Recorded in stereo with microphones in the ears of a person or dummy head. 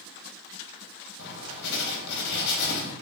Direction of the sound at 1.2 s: 60° left (ahead or behind).